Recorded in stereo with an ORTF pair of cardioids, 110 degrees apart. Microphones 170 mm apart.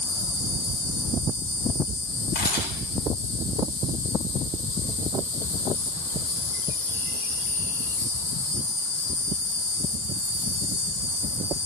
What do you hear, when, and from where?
0.0 s an insect: 55° left, 4.5 m
2.4 s a camera shutter: 70° left, 7 m